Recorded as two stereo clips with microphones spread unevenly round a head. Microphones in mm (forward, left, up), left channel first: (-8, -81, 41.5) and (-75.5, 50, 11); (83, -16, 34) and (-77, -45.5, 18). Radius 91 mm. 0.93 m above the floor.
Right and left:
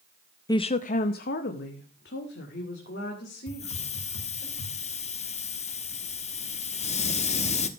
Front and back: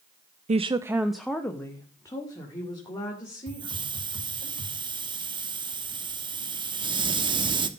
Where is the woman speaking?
135° right, 0.6 m; by 4.5 s 50° right, 4.5 m.